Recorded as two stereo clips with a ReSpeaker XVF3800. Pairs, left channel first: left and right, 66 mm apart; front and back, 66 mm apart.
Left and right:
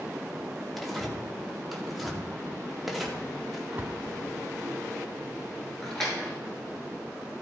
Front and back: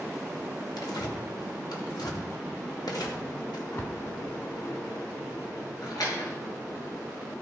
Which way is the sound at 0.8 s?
Straight ahead.